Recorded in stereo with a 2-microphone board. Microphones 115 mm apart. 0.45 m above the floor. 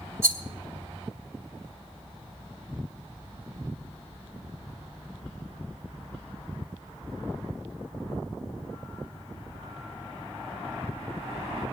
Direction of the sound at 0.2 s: 25° right (ahead or behind).